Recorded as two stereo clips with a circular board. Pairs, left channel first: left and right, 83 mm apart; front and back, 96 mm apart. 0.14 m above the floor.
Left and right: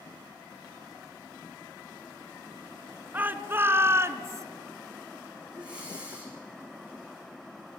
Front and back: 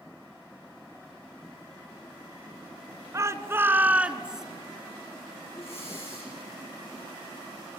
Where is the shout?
145° right, 1.4 m; by 4.5 s 100° right, 1.4 m.